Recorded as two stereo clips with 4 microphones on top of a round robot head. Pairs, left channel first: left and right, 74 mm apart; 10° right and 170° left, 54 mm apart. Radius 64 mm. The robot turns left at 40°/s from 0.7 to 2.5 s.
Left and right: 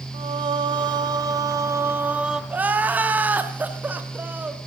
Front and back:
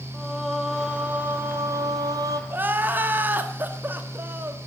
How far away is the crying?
About 1.7 m.